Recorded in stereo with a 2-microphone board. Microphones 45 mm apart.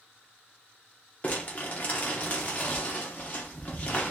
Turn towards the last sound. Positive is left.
turn(degrees=35)  # may be behind; listen again after turning